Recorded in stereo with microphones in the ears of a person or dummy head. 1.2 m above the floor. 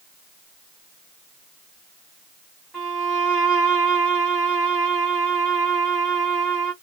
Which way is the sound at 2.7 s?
5° right (ahead or behind).